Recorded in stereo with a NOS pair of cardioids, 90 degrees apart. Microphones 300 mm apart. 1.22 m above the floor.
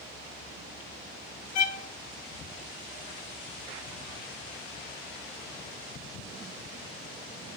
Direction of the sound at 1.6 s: 65° left.